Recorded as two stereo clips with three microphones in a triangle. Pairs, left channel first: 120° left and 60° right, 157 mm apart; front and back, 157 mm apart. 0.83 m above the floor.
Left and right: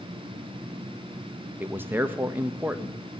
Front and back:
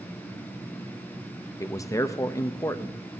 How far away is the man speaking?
About 0.7 m.